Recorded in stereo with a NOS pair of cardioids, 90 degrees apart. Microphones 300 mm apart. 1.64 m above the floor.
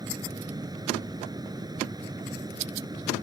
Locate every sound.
0.0 s a fan: 10° right